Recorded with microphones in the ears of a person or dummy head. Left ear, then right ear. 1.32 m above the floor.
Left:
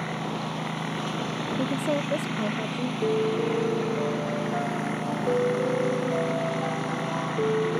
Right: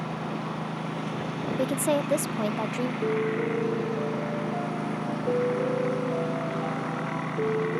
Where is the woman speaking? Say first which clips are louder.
Right 3 dB; 20° right (ahead or behind).